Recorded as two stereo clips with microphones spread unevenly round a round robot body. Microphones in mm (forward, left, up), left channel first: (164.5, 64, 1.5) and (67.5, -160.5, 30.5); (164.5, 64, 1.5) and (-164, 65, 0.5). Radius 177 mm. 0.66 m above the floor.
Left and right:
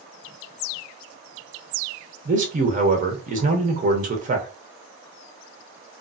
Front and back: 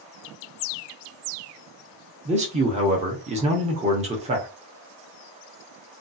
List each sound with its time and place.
2.2 s a man speaking: 140° right, 0.7 m